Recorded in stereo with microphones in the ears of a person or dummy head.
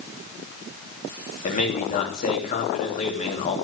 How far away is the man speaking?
About 3 m.